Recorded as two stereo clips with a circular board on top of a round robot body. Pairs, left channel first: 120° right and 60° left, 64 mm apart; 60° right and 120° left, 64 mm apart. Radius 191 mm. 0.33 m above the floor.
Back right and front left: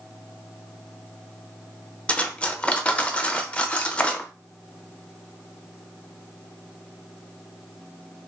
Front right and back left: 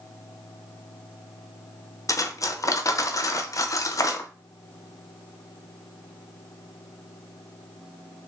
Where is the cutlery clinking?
55° right, 0.6 m.